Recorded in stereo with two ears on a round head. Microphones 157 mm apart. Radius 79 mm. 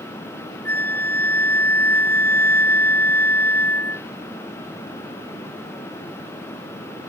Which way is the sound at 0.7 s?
15° left (ahead or behind).